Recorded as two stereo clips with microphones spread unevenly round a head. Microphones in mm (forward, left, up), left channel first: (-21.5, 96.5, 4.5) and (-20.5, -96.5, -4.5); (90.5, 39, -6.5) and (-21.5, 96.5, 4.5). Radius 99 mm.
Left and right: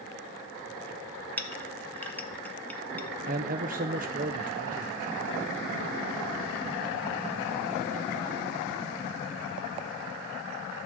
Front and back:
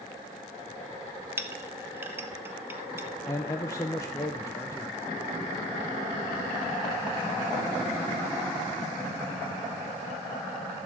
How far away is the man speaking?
About 0.7 m.